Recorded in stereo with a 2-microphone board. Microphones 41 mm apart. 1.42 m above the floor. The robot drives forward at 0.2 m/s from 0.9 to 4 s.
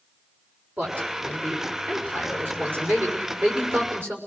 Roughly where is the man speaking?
Right.